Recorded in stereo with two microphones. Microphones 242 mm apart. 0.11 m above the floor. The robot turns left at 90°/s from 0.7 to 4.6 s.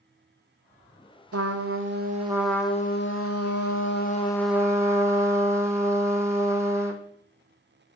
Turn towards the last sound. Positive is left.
turn(degrees=-10)